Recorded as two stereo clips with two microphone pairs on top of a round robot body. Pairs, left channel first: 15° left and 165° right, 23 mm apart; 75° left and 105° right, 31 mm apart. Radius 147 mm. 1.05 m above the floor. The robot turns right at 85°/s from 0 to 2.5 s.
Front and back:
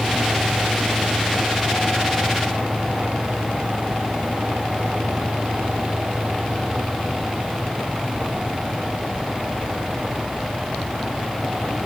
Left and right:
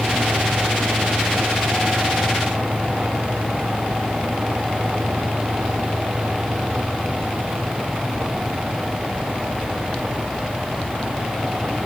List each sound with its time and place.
Only background noise.